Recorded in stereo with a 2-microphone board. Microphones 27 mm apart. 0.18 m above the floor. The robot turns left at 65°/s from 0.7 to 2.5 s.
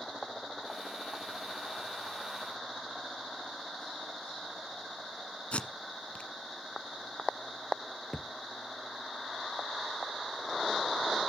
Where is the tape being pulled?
50° left (ahead or behind), 1.3 m.